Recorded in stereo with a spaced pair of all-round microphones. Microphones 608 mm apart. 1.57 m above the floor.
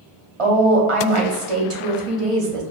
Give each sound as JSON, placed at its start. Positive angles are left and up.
{"t": 0.4, "sound": "a woman speaking", "side_deg": -55, "distance_m": 0.9}